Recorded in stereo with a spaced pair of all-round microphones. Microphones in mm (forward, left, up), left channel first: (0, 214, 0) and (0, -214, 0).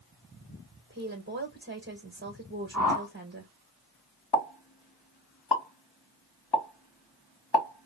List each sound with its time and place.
0.9 s a woman speaking: 25° right (ahead or behind), 1.3 m
2.7 s a whoosh: 45° left (ahead or behind), 2.5 m
4.3 s a pop: 65° left (ahead or behind), 1.5 m